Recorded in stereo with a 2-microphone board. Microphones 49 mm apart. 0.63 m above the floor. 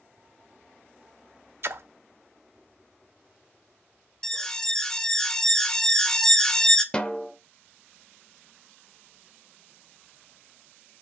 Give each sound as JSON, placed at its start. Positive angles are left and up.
{"t": 1.6, "sound": "a splash", "side_deg": -55, "distance_m": 0.6}
{"t": 4.2, "sound": "an alarm", "side_deg": 15, "distance_m": 0.8}
{"t": 6.9, "sound": "a snare drum", "side_deg": 20, "distance_m": 0.8}